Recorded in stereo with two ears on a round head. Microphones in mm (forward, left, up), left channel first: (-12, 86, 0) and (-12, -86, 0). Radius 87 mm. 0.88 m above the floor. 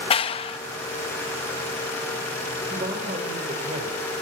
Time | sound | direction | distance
0.1 | a clap | 30° left (ahead or behind) | 0.8 m
2.7 | a man speaking | 35° right (ahead or behind) | 4.5 m